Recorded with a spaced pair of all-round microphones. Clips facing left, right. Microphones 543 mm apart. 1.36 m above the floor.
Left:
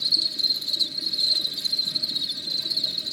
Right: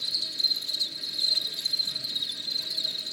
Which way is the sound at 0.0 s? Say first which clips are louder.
Left 7 dB; 60° left (ahead or behind).